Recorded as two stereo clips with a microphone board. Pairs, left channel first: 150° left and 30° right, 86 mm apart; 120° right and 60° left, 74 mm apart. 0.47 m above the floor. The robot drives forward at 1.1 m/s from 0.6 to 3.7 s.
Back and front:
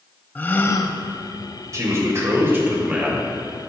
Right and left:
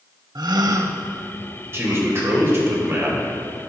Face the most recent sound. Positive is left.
turn(degrees=90)